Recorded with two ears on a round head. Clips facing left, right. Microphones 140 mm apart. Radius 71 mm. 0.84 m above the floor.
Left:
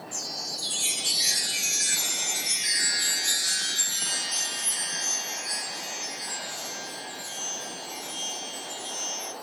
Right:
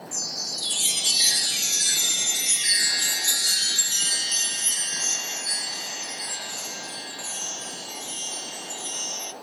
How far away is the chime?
About 1.2 m.